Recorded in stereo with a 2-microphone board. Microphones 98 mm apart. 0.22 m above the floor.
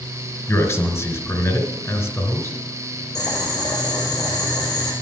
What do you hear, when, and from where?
0.5 s a man speaking: 30° left (ahead or behind), 3 m
3.1 s boiling: 40° left (ahead or behind), 4.5 m